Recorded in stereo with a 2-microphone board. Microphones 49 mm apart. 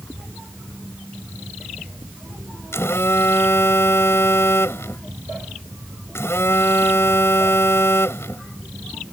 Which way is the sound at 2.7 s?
70° left (ahead or behind).